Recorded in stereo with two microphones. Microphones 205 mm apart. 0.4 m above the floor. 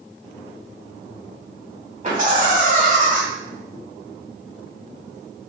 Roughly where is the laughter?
Right.